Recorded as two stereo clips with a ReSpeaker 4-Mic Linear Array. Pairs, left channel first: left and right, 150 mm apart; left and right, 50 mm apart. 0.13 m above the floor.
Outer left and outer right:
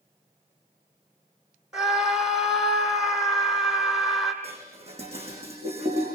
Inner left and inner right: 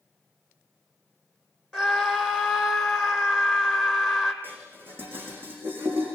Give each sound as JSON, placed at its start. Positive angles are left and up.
{"t": 1.7, "sound": "a scream", "side_deg": 0, "distance_m": 4.5}
{"t": 4.4, "sound": "dishes clattering", "side_deg": -40, "distance_m": 5.5}